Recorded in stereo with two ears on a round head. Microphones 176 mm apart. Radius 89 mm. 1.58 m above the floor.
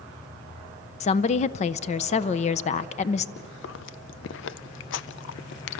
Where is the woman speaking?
35° left (ahead or behind), 0.6 m.